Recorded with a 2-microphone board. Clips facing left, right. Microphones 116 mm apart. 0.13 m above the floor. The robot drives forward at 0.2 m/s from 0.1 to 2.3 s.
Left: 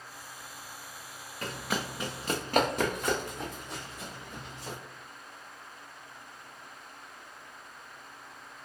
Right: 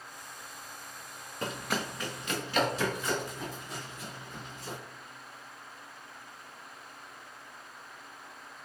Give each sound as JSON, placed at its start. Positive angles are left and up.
{"t": 1.4, "sound": "running footsteps", "side_deg": -25, "distance_m": 0.6}